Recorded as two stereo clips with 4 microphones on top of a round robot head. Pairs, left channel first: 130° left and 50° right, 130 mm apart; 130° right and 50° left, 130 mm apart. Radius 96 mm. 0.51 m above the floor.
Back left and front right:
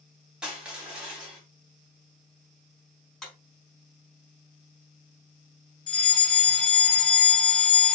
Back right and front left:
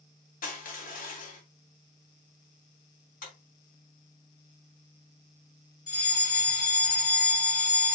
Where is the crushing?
135° right, 2.5 m.